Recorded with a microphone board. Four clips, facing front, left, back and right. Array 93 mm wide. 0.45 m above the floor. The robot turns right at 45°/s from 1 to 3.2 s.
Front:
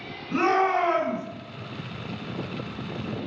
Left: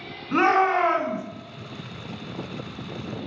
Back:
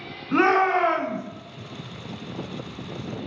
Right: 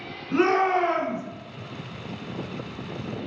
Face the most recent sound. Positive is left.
turn(degrees=-130)